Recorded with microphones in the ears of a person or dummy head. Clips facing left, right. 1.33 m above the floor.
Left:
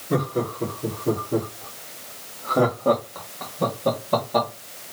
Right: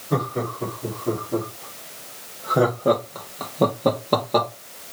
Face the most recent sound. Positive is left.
turn(degrees=-60)  # may be behind; listen again after turning